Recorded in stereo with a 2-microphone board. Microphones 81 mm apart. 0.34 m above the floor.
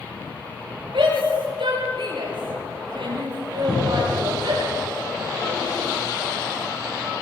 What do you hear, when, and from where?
0.9 s a shout: 85° right, 7.5 m
3.7 s a cupboard door: 10° left (ahead or behind), 10 m